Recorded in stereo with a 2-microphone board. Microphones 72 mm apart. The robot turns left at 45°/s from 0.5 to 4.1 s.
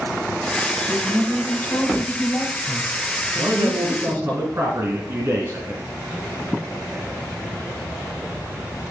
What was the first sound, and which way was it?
A woman speaking, 175° left.